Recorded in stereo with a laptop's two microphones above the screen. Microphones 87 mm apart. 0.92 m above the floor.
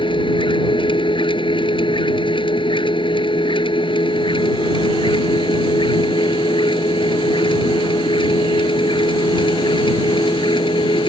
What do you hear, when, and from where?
0.0 s a machine running: 65° left (ahead or behind)